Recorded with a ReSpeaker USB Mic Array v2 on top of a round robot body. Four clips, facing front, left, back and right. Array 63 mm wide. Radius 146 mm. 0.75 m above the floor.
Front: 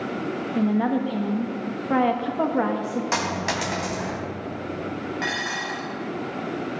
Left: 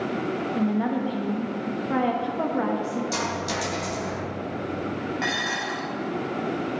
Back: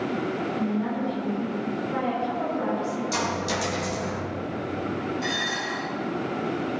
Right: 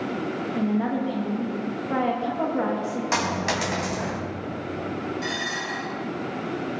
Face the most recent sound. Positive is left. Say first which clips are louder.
# left 2 dB, front 1 dB
turn(degrees=40)